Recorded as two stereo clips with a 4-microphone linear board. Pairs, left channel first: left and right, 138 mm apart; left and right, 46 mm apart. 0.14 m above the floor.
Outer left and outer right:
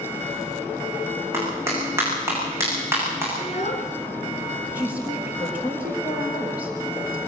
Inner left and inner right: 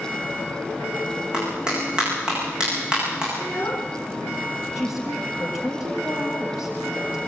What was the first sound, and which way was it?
A clap, 15° right (ahead or behind).